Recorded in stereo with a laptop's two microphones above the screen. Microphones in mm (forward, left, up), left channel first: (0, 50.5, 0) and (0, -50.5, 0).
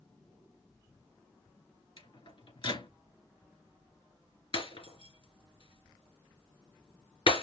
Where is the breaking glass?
65° left (ahead or behind), 2.5 m.